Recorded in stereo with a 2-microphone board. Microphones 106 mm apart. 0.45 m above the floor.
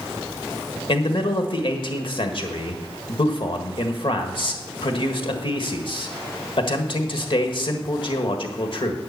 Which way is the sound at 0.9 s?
60° left (ahead or behind).